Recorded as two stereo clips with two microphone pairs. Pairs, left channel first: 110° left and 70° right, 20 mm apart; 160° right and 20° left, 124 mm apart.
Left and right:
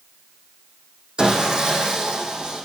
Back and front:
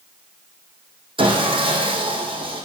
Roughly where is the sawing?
Ahead.